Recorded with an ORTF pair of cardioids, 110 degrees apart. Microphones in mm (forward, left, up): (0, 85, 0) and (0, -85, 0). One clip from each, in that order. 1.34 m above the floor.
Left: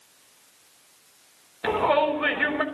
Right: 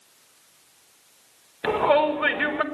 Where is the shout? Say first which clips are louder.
Right 2 dB; 10° right, 4.5 m.